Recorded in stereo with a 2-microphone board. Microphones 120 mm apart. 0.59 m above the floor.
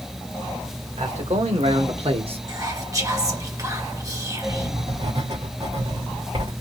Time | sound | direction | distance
1.0 | a man speaking | 70° right (ahead or behind) | 1.9 m
2.5 | whispering | 30° right (ahead or behind) | 1.4 m
4.5 | writing | 50° right (ahead or behind) | 2 m